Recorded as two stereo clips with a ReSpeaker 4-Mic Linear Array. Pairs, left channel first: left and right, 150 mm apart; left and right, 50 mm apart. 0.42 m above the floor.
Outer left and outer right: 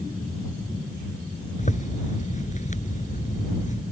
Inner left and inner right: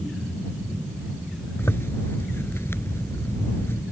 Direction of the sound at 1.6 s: 55° left (ahead or behind).